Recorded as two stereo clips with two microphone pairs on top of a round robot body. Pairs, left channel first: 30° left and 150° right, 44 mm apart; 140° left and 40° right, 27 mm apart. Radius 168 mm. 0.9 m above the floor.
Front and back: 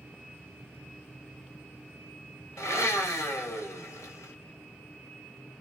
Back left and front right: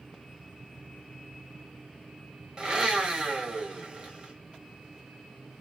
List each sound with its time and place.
2.6 s a blender: 35° left, 1.2 m